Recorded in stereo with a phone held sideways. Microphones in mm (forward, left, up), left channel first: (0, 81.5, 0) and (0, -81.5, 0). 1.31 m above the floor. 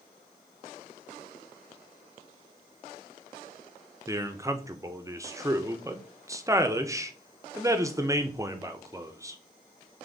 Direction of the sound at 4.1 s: 20° right (ahead or behind).